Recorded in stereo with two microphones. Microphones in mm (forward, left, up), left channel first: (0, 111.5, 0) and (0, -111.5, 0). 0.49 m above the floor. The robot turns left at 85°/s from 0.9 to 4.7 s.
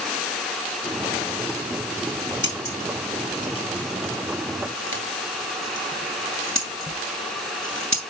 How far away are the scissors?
About 2.5 m.